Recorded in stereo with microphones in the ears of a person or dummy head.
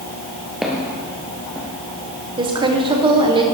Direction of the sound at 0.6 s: 5° right (ahead or behind).